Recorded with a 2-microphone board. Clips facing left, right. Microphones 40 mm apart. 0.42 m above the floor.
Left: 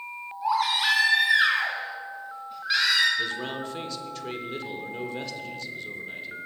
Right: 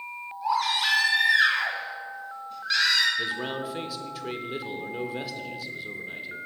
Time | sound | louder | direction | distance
0.4 | a baby crying | left 1 dB | 10° left (ahead or behind) | 2.5 m
3.2 | a man speaking | even | 10° right (ahead or behind) | 0.9 m